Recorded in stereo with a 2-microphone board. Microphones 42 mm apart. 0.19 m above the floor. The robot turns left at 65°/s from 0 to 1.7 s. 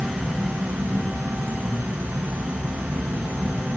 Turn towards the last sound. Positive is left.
turn(degrees=-125)